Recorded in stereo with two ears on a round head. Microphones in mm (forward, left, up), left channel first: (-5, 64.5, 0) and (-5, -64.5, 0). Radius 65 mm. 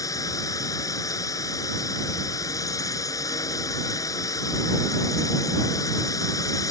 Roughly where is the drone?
Left.